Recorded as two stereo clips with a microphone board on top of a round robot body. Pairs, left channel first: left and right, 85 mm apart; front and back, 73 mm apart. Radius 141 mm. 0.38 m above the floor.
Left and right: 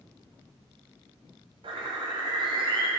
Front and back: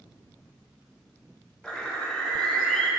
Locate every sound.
1.6 s a bird: 80° right, 1.8 m